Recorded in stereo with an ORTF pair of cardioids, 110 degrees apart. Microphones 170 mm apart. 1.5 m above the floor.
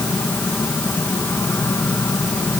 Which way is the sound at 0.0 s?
15° left.